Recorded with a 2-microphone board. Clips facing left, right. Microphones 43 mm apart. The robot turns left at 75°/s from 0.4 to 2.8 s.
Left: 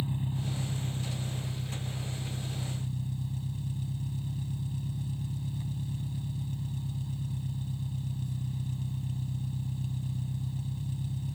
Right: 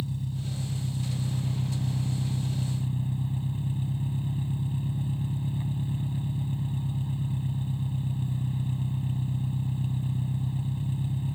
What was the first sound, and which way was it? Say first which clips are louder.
An engine running: even; 30° left.